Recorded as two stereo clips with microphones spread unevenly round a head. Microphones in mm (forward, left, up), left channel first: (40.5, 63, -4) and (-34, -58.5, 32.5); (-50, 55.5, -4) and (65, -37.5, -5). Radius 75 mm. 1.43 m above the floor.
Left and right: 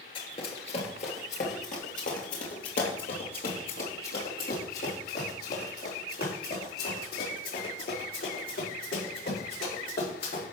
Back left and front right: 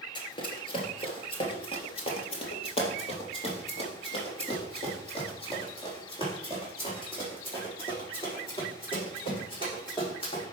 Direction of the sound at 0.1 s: 115° left.